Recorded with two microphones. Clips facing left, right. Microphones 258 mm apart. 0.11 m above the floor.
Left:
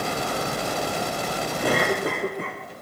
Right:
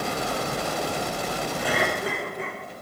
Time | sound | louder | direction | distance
1.6 | a cough | left 5 dB | 50° left (ahead or behind) | 8 m